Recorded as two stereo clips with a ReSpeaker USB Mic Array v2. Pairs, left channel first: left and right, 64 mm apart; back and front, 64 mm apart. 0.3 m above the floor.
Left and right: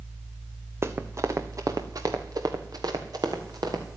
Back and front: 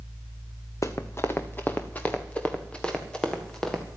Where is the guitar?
I don't hear a guitar.